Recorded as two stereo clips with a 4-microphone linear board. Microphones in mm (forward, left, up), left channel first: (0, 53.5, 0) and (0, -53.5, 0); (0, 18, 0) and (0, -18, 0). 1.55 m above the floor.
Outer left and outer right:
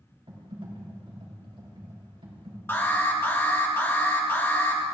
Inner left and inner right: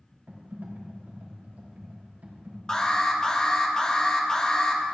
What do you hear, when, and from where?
0.3 s typing on a keyboard: 65° right (ahead or behind), 4 m
2.7 s an alarm: 20° left (ahead or behind), 2 m